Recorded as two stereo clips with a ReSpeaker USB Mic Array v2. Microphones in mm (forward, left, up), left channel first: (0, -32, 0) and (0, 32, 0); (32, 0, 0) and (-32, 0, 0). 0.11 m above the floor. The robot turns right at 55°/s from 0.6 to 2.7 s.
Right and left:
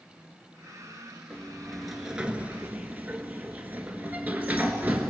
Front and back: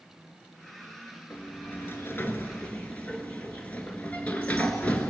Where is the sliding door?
25° right, 1.6 m; by 5.1 s 50° left, 1.6 m.